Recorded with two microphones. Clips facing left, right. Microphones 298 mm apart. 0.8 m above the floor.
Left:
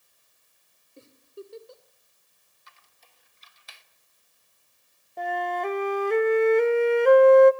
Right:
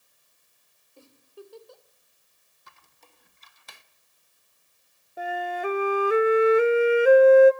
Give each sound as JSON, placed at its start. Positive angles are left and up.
{"t": 1.0, "sound": "a giggle", "side_deg": 25, "distance_m": 2.5}
{"t": 2.7, "sound": "a squeak", "side_deg": -60, "distance_m": 1.0}
{"t": 5.2, "sound": "a flute", "side_deg": -5, "distance_m": 0.6}